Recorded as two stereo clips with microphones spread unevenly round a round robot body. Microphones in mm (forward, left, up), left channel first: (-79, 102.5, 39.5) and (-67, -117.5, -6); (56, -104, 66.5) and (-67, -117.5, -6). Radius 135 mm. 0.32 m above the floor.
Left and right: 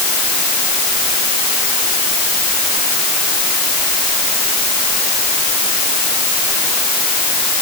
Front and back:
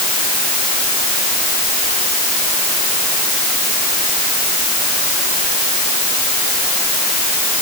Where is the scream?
I don't hear a scream.